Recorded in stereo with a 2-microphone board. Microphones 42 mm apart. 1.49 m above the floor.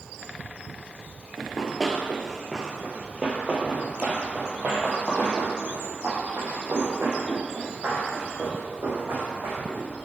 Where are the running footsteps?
10° left (ahead or behind), 1.5 m; by 9.8 s 55° right (ahead or behind), 5 m.